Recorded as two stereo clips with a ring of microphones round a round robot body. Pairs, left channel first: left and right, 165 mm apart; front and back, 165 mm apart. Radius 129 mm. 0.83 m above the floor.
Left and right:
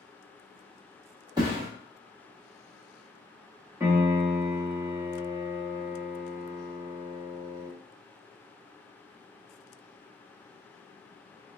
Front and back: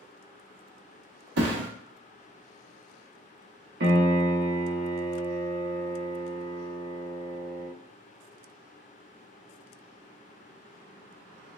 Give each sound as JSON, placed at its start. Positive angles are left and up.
{"t": 1.4, "sound": "a thud", "azimuth_deg": -165, "distance_m": 0.7}
{"t": 3.8, "sound": "a piano", "azimuth_deg": -170, "distance_m": 0.8}